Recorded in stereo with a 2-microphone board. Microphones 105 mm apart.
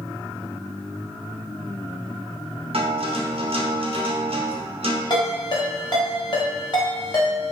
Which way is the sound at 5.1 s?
45° left (ahead or behind).